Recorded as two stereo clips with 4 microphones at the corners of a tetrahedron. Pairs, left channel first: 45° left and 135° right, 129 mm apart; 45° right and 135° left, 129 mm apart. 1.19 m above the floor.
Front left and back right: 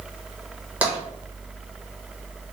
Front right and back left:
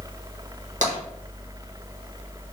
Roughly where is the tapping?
Behind left.